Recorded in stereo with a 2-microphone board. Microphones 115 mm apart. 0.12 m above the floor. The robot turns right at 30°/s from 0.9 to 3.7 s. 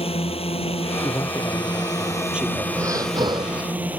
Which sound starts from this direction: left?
A drone, at 0.0 s.